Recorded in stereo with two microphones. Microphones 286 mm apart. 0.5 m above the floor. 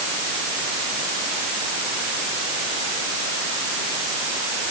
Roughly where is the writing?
No writing in this recording.